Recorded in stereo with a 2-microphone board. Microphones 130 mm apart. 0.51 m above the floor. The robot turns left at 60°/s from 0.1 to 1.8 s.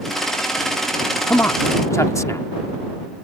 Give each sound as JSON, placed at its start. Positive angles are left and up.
{"t": 1.3, "sound": "a man speaking", "side_deg": 20}